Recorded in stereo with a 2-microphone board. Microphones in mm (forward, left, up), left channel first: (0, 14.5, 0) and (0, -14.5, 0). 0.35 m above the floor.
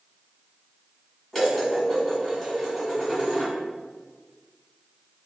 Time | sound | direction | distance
1.3 | dishes clattering | 15° left (ahead or behind) | 1.7 m